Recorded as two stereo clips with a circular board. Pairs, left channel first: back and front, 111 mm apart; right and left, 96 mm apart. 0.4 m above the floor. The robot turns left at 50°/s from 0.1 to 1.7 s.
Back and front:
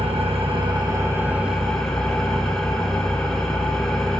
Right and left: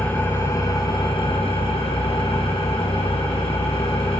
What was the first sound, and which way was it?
An engine running, 15° right.